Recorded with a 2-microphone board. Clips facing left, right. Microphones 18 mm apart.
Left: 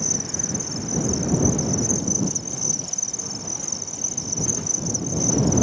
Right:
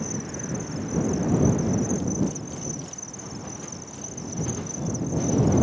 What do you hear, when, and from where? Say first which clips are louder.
0.0 s an insect: left 6 dB; 60° left (ahead or behind)